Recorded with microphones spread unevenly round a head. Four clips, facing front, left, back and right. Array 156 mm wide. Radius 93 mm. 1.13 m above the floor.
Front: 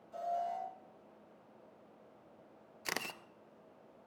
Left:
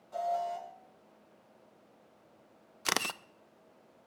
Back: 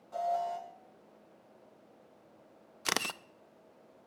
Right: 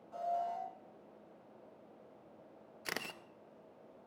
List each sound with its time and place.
0.1 s an alarm: 165° left, 7 m
2.9 s a camera shutter: 80° left, 0.6 m